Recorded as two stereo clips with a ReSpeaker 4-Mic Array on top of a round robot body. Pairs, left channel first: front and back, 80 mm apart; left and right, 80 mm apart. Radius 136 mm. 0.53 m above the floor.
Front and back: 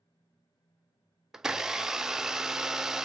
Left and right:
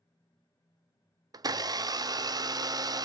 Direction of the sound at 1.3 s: 100° right.